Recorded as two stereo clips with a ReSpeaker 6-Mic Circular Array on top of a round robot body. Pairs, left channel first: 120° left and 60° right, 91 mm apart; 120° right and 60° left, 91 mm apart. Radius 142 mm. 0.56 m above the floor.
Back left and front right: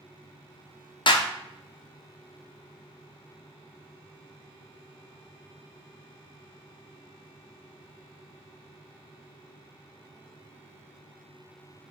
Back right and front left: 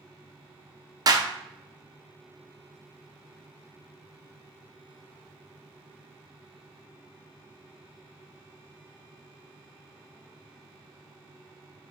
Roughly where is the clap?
Left.